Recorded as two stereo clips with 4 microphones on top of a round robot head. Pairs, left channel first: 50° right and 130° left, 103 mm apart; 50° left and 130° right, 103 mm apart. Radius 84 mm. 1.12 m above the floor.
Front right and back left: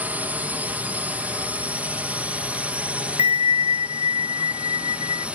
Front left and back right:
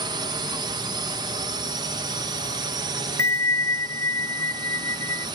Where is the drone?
155° right.